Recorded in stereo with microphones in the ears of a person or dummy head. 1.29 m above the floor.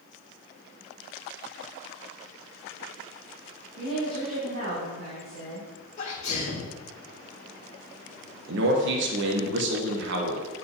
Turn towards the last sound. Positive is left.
turn(degrees=-65)  # may be behind; listen again after turning